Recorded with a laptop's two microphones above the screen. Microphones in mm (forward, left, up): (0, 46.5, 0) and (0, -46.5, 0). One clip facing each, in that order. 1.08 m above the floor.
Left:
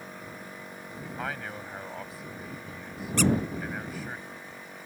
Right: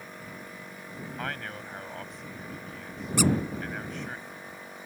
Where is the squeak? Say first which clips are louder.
Even; 10° right (ahead or behind).